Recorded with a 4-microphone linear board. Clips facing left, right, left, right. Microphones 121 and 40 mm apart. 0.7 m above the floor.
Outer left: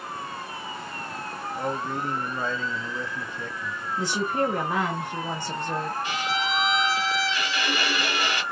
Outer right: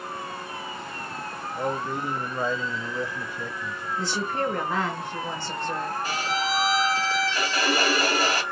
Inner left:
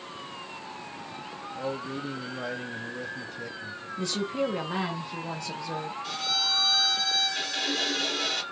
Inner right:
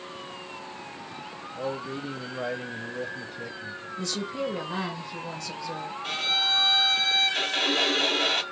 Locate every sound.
1.5 s a man speaking: 10° right (ahead or behind), 0.6 m
4.0 s a woman speaking: 15° left (ahead or behind), 0.9 m
6.0 s a violin: 40° right (ahead or behind), 0.6 m